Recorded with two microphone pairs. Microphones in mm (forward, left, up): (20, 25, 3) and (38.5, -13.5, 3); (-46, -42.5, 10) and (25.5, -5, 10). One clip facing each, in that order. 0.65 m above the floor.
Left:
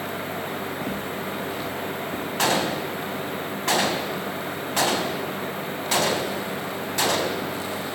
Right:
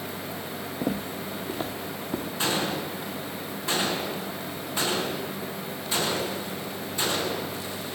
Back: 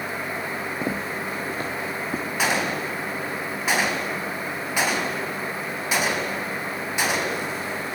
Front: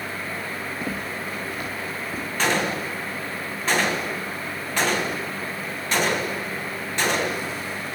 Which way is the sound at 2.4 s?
125° left.